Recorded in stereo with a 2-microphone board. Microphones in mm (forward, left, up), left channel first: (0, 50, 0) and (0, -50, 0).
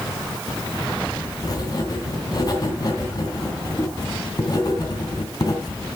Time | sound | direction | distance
1.4 | writing | 40° left (ahead or behind) | 3 m